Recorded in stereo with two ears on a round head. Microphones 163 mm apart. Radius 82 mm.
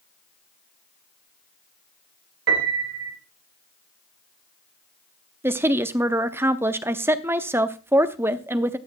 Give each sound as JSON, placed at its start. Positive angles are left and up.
{"t": 2.5, "sound": "a piano", "side_deg": -65, "distance_m": 2.5}
{"t": 5.4, "sound": "a woman speaking", "side_deg": -15, "distance_m": 0.6}